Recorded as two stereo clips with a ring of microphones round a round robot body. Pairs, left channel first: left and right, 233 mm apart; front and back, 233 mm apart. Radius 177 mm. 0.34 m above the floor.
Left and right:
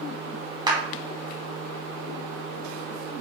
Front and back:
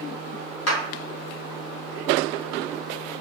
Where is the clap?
20° right, 3 m.